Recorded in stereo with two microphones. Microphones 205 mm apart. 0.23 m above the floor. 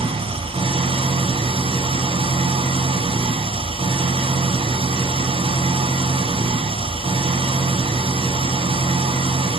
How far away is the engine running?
About 1.0 m.